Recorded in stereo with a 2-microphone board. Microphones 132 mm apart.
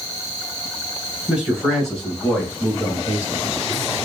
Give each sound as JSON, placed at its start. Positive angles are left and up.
{"t": 1.3, "sound": "a man speaking", "side_deg": -10, "distance_m": 1.4}